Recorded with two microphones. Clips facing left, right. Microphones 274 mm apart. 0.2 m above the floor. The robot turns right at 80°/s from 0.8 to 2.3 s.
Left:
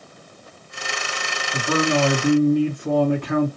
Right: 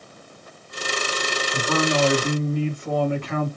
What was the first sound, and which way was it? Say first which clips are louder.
A man speaking: left 2 dB; 30° left.